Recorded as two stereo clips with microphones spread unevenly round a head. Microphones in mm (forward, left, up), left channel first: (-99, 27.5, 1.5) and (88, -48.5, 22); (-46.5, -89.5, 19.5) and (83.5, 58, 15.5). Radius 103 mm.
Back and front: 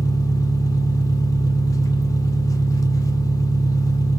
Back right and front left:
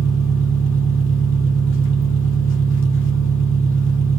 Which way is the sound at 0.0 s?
125° right.